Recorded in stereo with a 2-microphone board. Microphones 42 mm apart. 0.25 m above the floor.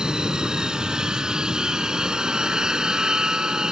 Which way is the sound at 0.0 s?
15° right (ahead or behind).